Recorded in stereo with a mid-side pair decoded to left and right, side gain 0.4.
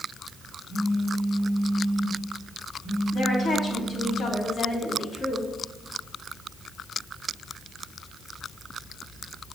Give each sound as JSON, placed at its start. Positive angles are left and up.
{"t": 0.7, "sound": "a phone buzzing", "azimuth_deg": 60, "distance_m": 3.0}
{"t": 3.1, "sound": "a woman speaking", "azimuth_deg": 45, "distance_m": 3.0}